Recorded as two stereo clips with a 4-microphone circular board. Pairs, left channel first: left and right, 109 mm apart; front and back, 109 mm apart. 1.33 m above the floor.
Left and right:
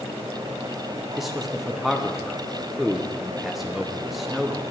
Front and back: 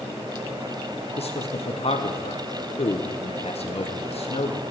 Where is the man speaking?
Straight ahead, 0.9 m.